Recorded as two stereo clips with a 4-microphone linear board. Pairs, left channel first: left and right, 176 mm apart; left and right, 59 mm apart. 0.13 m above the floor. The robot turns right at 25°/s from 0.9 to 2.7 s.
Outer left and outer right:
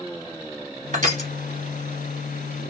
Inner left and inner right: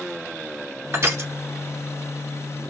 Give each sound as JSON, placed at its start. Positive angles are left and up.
{"t": 0.9, "sound": "crushing", "side_deg": -45, "distance_m": 1.2}